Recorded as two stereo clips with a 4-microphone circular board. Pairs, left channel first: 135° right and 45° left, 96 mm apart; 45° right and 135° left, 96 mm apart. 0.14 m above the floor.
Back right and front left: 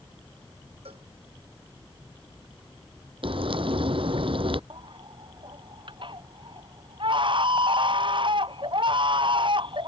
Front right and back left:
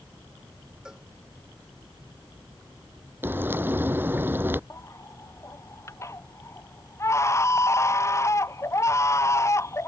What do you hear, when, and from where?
0.8 s a cowbell: 50° left
3.2 s frying: 65° left
4.7 s a baby crying: 15° left